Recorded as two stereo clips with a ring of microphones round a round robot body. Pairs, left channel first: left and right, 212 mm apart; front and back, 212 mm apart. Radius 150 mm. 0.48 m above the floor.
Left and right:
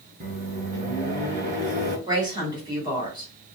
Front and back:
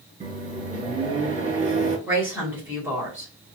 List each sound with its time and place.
0.2 s a microwave: 135° right, 0.9 m
2.1 s a woman speaking: 115° right, 1.2 m